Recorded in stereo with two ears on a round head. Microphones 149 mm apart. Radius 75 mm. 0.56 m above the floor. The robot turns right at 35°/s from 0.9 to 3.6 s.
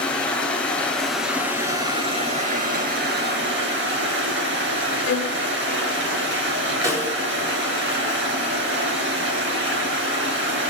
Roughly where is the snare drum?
Right.